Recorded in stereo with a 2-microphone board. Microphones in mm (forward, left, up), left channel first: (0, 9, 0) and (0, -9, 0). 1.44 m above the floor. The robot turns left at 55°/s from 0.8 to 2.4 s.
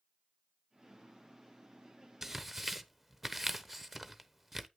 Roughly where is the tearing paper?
Centre.